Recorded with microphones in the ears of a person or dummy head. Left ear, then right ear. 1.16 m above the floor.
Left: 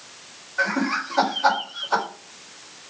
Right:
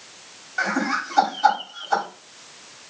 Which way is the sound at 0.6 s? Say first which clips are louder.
Even; 60° right (ahead or behind).